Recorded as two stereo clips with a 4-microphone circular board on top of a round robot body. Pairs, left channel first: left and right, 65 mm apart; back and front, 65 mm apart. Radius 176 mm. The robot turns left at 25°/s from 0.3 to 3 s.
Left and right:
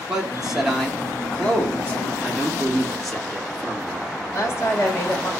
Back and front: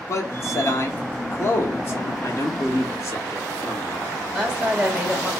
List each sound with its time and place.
0.1 s a man speaking: 170° right, 1.3 m; by 2.1 s 145° left, 1.3 m
2.2 s a man speaking: 170° right, 1.9 m; by 4.1 s 175° left, 1.9 m
4.3 s a woman speaking: 85° left, 1.3 m